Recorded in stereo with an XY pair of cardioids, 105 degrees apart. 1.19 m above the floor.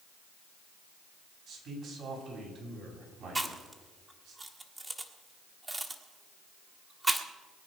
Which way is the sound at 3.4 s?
20° right.